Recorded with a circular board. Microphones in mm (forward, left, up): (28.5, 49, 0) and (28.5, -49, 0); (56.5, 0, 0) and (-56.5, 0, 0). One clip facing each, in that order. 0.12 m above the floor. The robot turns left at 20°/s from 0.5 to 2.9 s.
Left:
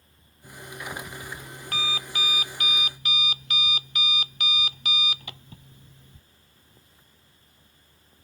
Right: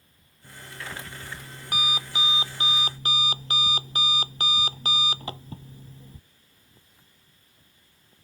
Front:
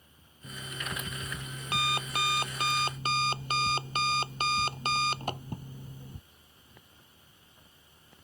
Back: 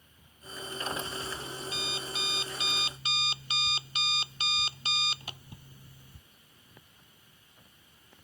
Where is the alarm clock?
10° left; by 6.2 s 35° right.